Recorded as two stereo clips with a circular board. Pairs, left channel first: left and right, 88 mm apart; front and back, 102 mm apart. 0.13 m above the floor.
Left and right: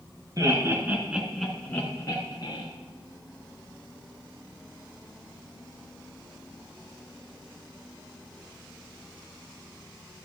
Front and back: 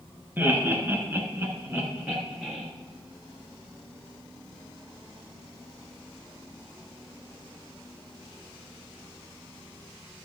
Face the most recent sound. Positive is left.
turn(degrees=105)